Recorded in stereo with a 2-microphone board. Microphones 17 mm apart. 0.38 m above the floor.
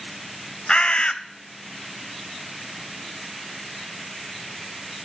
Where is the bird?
60° left (ahead or behind), 0.6 m.